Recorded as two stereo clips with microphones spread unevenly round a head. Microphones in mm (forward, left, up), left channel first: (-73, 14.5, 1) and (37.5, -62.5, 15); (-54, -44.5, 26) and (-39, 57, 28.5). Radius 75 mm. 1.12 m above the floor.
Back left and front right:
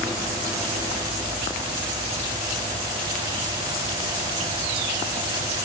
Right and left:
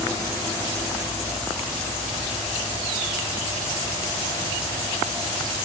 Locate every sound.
Only background noise.